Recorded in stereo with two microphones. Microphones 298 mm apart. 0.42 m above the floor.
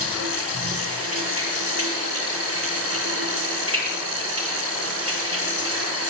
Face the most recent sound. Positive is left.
turn(degrees=-50)  # may be behind; listen again after turning